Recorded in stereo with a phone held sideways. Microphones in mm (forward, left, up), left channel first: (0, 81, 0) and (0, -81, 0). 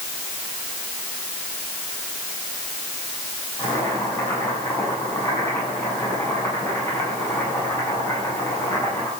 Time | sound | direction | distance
3.6 | boiling | 15° left (ahead or behind) | 8.5 m